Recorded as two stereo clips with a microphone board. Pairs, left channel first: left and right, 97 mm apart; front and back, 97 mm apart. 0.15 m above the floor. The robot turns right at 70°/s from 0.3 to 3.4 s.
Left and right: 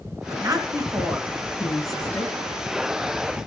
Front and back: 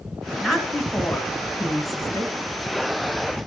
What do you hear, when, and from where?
0.3 s a woman speaking: 105° right, 1.8 m; by 2.3 s 35° left, 1.8 m